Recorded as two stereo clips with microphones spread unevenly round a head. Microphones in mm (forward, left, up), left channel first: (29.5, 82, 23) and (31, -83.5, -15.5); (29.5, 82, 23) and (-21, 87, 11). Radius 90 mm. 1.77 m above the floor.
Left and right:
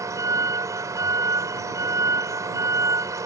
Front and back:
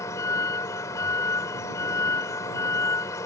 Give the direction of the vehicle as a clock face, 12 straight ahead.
12 o'clock.